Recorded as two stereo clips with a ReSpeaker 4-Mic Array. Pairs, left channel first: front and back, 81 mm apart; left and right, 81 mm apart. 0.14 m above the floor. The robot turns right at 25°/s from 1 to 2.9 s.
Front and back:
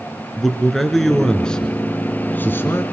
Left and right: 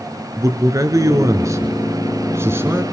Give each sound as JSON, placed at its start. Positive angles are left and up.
{"t": 0.4, "sound": "a man speaking", "azimuth_deg": -90, "distance_m": 1.9}